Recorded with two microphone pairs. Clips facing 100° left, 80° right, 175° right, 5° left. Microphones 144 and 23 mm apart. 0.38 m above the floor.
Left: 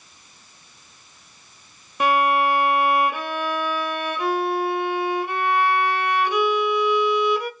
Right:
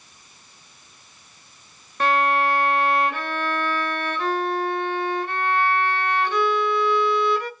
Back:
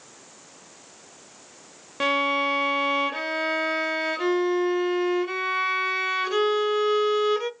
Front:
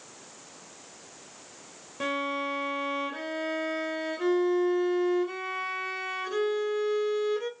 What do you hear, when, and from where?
2.0 s a violin: 175° left, 1.1 m